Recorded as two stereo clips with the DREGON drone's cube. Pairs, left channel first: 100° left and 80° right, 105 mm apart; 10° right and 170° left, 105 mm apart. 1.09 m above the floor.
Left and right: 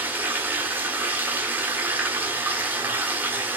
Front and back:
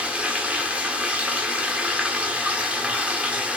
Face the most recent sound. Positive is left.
turn(degrees=-125)